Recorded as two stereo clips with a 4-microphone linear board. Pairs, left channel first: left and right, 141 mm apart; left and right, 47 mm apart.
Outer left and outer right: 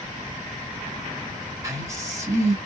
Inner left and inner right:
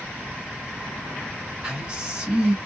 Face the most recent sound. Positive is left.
turn(degrees=-20)  # may be behind; listen again after turning